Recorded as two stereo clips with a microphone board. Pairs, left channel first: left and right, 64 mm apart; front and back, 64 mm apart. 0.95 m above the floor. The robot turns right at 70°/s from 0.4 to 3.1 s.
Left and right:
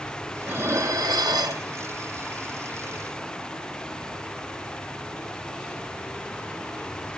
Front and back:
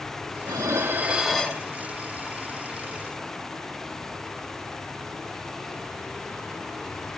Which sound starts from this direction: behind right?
Dishes clattering, at 0.4 s.